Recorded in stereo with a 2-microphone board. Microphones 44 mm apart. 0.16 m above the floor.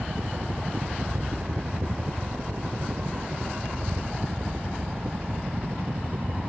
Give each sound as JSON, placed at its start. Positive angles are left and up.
{"t": 0.0, "sound": "a helicopter", "side_deg": -60}